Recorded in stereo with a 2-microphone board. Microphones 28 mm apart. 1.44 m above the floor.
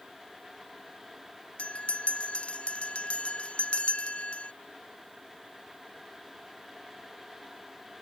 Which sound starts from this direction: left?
A bell, at 1.6 s.